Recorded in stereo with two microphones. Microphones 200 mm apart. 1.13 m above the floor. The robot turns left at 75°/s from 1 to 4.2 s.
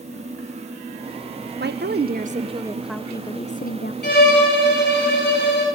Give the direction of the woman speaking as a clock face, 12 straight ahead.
3 o'clock.